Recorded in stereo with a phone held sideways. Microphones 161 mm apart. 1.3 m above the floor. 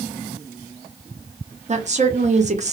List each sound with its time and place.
1.7 s a woman speaking: 45° right (ahead or behind), 0.5 m